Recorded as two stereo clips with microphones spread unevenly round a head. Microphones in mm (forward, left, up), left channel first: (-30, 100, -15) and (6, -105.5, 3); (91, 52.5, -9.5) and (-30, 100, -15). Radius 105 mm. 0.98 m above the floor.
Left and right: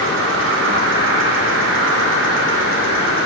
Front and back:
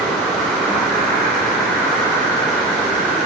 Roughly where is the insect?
Right.